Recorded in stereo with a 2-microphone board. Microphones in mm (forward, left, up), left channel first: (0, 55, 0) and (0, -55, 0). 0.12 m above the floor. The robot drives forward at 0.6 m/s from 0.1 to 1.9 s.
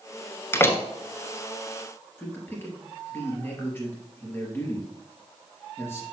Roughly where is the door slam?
Left.